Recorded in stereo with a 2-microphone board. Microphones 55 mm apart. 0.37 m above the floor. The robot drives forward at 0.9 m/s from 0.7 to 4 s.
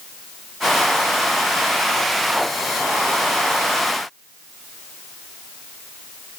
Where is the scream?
No scream in this recording.